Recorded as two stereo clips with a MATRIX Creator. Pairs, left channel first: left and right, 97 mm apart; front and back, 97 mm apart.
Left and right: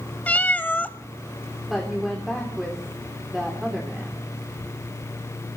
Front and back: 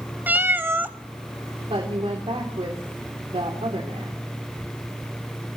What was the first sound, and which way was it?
A cat meowing, 140° left.